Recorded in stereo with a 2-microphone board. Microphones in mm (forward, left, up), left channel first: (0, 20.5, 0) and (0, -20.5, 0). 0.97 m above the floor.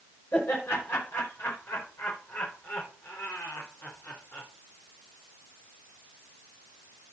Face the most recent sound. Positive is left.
turn(degrees=65)  # may be behind; listen again after turning